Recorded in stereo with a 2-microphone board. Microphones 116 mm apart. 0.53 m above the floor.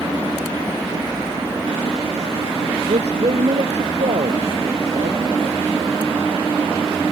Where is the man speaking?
75° right (ahead or behind).